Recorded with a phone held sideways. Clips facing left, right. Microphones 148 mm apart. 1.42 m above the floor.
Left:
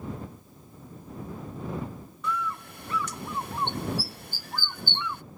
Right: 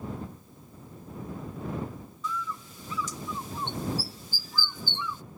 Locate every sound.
2.2 s a bird: 65° left (ahead or behind)